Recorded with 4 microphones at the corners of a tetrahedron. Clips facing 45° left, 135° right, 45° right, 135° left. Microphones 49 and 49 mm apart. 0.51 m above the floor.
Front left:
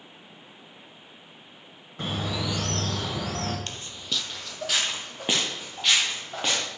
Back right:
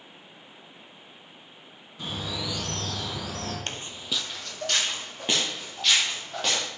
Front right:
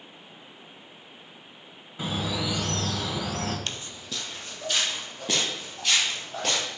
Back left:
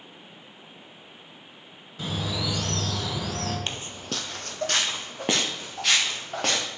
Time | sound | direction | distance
2.0 | a bird | 25° left | 2.5 m
3.7 | footsteps | 165° right | 0.7 m